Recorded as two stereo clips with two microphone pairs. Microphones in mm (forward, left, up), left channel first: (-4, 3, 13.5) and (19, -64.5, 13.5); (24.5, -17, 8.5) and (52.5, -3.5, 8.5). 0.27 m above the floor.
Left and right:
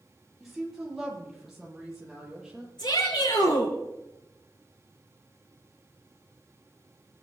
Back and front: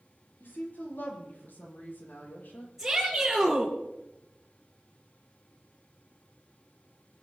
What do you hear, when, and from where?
0.4 s a woman speaking: 155° right, 7.5 m
2.8 s a shout: 110° left, 6.5 m